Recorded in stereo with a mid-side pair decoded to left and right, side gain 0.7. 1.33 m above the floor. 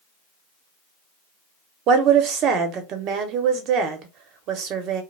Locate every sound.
1.9 s a woman speaking: 55° right, 0.9 m